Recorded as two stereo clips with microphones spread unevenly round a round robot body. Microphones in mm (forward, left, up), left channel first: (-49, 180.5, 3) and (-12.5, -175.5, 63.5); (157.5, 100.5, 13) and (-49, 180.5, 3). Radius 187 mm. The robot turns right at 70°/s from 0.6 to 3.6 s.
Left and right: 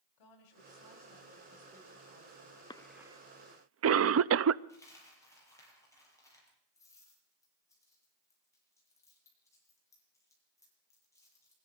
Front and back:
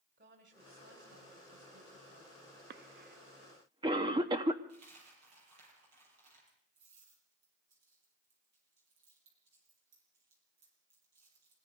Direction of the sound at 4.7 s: Straight behind.